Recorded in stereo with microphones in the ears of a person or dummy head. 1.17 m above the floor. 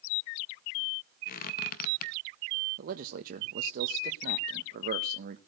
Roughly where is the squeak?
Left.